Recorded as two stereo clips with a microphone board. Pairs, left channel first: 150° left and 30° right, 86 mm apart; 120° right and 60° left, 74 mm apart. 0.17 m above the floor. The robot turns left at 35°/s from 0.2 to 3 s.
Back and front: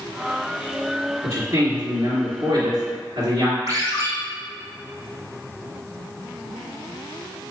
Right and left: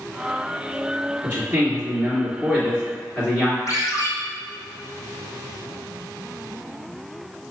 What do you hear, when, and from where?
1.2 s a man speaking: 5° left, 2.0 m; by 3.6 s 55° right, 2.0 m
3.7 s a ringtone: 80° right, 1.6 m